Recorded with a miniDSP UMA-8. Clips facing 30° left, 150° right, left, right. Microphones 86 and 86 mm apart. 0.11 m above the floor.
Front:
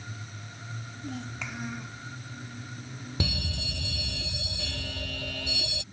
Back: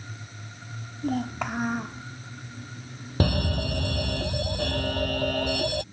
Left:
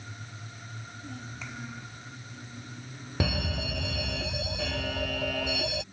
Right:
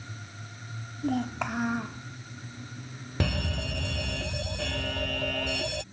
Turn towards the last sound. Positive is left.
turn(degrees=175)